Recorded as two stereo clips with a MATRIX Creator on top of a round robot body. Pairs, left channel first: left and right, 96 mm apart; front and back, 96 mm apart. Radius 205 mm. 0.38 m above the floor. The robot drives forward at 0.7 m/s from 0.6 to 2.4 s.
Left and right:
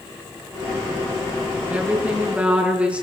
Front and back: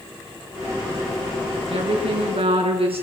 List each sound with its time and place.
1.7 s a woman speaking: 165° right, 6.5 m